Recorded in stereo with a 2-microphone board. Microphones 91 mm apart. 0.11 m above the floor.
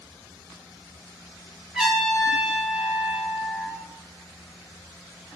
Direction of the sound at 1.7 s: 10° right (ahead or behind).